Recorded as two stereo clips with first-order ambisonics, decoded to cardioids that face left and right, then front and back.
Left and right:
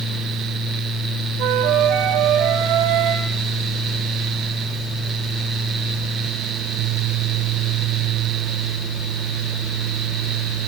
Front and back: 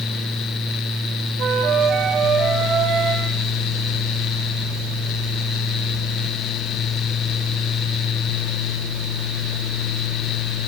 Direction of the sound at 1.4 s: 125° right.